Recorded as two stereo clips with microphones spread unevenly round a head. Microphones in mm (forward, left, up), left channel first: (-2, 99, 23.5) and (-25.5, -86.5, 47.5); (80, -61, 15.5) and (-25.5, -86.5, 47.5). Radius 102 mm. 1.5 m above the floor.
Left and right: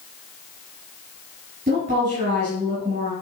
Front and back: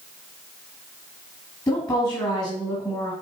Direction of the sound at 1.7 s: 40° right.